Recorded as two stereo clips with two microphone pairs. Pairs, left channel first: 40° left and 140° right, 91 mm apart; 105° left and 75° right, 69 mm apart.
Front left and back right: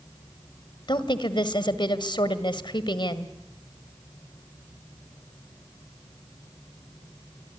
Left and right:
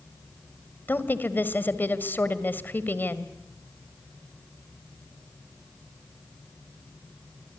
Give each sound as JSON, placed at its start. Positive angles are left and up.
{"t": 0.9, "sound": "a woman speaking", "azimuth_deg": 50, "distance_m": 1.7}